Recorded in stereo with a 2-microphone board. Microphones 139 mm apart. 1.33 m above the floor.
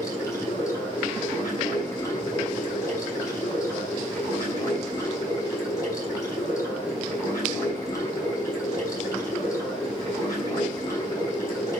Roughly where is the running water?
Left.